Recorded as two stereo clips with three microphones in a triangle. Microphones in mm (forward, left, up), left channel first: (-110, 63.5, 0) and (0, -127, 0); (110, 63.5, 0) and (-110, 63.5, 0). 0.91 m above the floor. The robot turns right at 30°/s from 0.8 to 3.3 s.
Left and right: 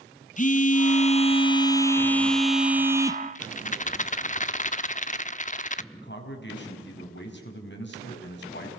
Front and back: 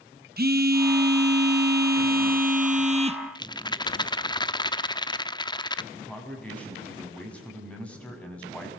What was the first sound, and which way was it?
A phone buzzing, 160° left.